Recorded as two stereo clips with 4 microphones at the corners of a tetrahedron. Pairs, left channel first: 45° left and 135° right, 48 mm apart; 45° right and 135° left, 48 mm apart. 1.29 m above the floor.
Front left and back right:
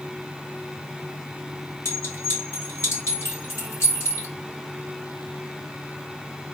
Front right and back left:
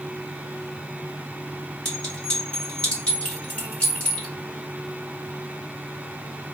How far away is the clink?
About 1.7 m.